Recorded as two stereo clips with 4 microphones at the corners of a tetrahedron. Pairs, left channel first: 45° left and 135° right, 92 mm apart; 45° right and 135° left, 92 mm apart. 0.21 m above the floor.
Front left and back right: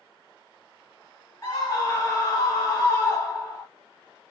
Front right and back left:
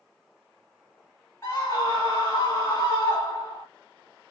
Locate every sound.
1.4 s a scream: straight ahead, 1.3 m